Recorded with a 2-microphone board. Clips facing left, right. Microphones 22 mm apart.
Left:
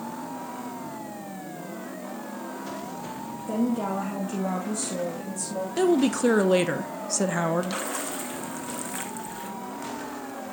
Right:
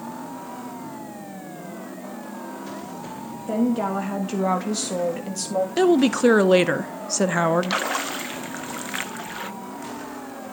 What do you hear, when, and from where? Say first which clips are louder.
3.5 s a woman speaking: right 4 dB; 20° right (ahead or behind), 1.9 m; by 5.7 s 75° right (ahead or behind), 2 m
5.8 s a woman speaking: right 3 dB; 20° right (ahead or behind), 0.6 m
7.6 s a splash: right 6 dB; 45° right (ahead or behind), 0.7 m